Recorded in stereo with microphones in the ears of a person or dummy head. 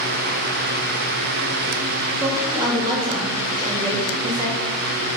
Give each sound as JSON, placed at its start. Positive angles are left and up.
{"t": 2.2, "sound": "a woman speaking", "side_deg": -20, "distance_m": 1.8}